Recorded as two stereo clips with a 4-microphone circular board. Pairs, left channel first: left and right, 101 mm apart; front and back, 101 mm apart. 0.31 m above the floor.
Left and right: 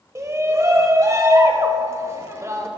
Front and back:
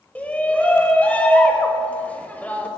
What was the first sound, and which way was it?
A shout, 60° right.